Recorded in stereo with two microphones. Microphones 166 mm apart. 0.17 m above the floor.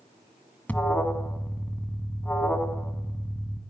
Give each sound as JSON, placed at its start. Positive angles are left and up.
{"t": 0.7, "sound": "an alarm", "side_deg": 10, "distance_m": 1.4}